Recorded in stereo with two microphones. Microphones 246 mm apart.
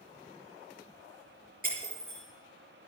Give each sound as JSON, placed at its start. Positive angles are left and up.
{"t": 1.6, "sound": "breaking glass", "side_deg": -35, "distance_m": 5.5}